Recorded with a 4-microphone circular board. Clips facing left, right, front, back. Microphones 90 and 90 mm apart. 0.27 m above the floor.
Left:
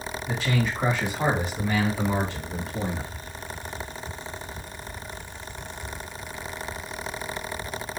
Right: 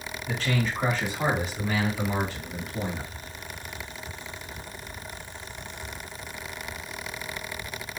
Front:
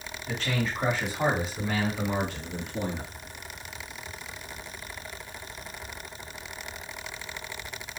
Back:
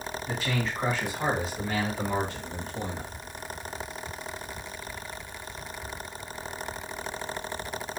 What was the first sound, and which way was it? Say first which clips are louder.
A man speaking: left 1 dB, front 2 dB; 150° left.